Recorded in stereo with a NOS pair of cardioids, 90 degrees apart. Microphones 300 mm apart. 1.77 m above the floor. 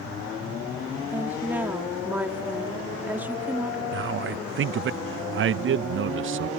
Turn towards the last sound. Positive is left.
turn(degrees=-40)